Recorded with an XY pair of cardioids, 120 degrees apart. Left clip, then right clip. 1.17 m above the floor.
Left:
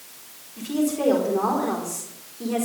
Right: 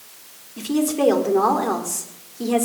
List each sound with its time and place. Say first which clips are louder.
0.6 s a woman speaking: right 4 dB; 45° right, 4 m